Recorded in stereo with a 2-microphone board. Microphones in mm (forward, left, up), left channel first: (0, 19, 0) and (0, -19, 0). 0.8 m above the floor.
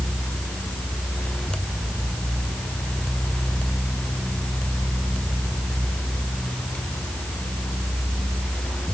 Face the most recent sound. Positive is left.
No sound to turn to.